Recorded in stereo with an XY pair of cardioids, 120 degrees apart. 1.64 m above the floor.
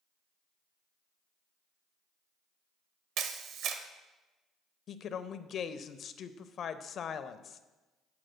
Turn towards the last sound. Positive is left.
turn(degrees=50)